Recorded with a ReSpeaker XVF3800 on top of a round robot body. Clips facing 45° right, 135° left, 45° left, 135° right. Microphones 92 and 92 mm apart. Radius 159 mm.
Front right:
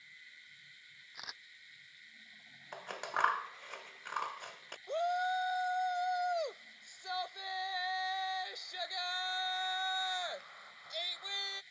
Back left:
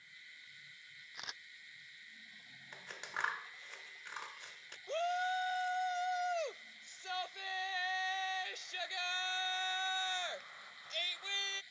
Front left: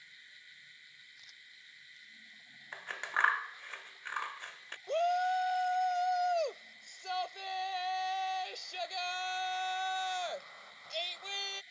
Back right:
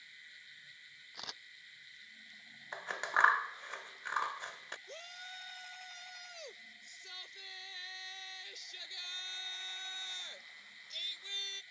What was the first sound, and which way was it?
A camera shutter, 130° right.